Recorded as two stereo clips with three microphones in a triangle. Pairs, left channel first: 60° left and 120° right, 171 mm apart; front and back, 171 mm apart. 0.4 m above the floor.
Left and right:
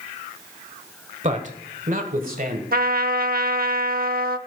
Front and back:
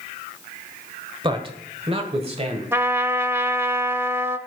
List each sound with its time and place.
1.2 s a man speaking: 135° right, 1.2 m
2.7 s a trumpet: 110° right, 0.6 m